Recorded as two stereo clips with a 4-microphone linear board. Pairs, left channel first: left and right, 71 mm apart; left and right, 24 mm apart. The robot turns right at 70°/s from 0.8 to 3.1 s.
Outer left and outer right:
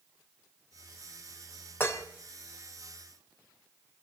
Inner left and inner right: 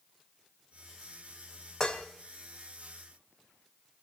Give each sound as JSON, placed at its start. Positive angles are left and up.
{"t": 1.8, "sound": "dishes clattering", "side_deg": 30, "distance_m": 1.1}